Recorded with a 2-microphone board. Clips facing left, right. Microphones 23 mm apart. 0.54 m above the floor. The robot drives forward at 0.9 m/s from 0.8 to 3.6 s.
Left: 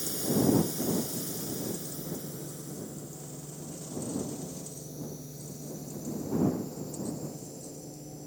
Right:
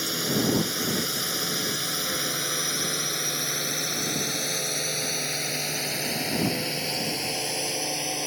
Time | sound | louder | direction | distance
0.0 | a drone | right 3 dB | 45° right (ahead or behind) | ?